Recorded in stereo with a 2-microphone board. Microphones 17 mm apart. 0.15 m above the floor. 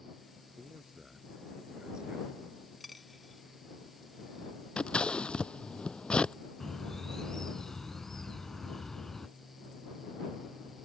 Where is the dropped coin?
Centre (ahead or behind).